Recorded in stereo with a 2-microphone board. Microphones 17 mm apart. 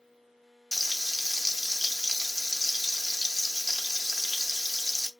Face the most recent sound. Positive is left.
turn(degrees=30)  # may be behind; listen again after turning